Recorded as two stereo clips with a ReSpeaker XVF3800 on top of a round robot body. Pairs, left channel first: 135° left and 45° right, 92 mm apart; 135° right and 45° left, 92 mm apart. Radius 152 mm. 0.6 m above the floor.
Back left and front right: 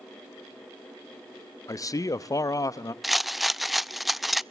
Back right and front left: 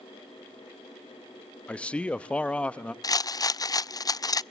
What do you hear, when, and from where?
1.7 s a man speaking: 155° left, 0.9 m
3.0 s a rattle: 135° right, 0.6 m